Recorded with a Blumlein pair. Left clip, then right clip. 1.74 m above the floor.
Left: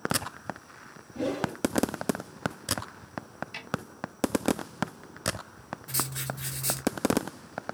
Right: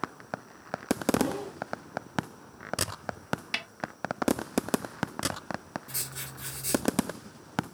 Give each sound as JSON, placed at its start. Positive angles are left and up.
{"t": 1.1, "sound": "a whoosh", "azimuth_deg": 55, "distance_m": 3.0}
{"t": 3.5, "sound": "a snare drum", "azimuth_deg": -50, "distance_m": 0.7}
{"t": 5.9, "sound": "writing", "azimuth_deg": 65, "distance_m": 1.4}